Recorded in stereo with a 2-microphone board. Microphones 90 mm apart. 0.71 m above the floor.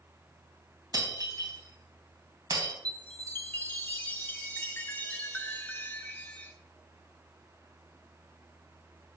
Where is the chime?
20° left (ahead or behind), 0.9 m.